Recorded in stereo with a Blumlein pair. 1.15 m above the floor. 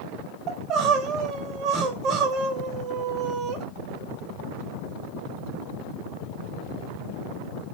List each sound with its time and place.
0.5 s crying: 30° right, 0.5 m